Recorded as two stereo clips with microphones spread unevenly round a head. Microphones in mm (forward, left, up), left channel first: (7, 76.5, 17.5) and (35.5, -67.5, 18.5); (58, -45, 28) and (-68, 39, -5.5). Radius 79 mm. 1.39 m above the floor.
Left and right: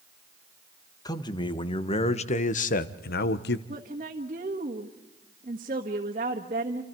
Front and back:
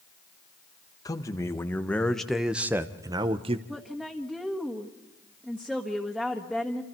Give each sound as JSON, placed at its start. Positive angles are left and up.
{"t": 1.1, "sound": "a man speaking", "azimuth_deg": 35, "distance_m": 1.5}
{"t": 3.7, "sound": "a woman speaking", "azimuth_deg": -125, "distance_m": 1.6}